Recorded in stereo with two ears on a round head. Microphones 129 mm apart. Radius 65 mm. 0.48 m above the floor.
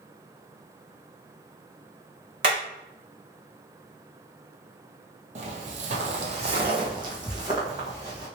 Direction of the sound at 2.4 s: 35° right (ahead or behind).